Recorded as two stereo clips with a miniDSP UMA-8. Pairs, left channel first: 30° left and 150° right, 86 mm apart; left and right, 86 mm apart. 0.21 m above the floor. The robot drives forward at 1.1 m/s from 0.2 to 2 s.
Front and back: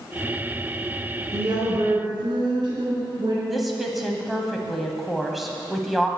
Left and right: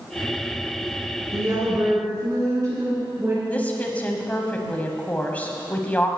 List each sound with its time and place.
1.3 s a woman speaking: 125° right, 2 m; by 3.4 s 140° right, 2.5 m
3.5 s a woman speaking: 120° left, 1.2 m